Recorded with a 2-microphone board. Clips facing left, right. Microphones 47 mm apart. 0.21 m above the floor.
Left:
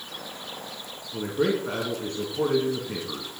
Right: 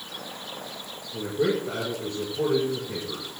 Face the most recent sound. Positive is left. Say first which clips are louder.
# even
turn(degrees=60)  # may be behind; listen again after turning